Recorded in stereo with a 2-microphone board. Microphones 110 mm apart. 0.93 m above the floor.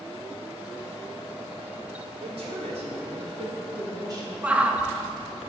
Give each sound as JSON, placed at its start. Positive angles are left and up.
{"t": 2.2, "sound": "a woman speaking", "side_deg": -65, "distance_m": 3.0}
{"t": 4.4, "sound": "a shout", "side_deg": -10, "distance_m": 0.7}